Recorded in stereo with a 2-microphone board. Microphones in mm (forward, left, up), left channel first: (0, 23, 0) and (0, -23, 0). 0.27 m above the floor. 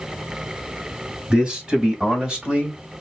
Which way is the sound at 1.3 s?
20° right (ahead or behind).